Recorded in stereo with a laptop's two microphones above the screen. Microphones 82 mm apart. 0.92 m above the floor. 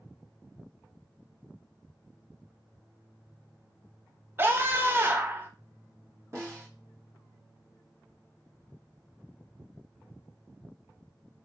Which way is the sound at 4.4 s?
25° right (ahead or behind).